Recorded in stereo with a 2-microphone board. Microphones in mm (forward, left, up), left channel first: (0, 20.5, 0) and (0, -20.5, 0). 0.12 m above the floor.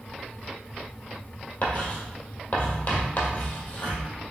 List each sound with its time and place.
1.6 s writing: 55° left (ahead or behind), 1.5 m